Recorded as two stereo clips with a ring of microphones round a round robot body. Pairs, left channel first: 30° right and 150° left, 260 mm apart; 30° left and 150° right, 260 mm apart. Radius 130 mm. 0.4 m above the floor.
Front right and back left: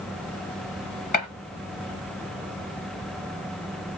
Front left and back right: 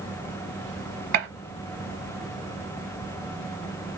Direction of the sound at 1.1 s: 95° right.